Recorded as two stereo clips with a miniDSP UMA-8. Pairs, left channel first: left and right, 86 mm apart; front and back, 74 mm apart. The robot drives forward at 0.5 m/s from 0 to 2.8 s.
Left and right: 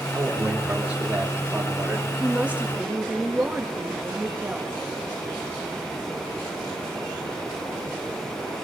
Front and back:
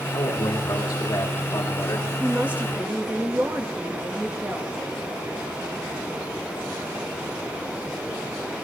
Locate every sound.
0.1 s a man speaking: 20° right, 3.5 m; by 2.1 s 25° right, 2.5 m
2.2 s a woman speaking: 130° right, 1.1 m; by 4.7 s 150° right, 1.2 m